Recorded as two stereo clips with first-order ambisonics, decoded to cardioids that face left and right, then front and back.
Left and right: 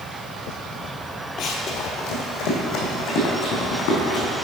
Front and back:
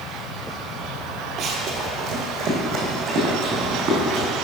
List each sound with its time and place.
1.4 s running footsteps: 120° left, 1.3 m; by 4.3 s 110° left, 4.5 m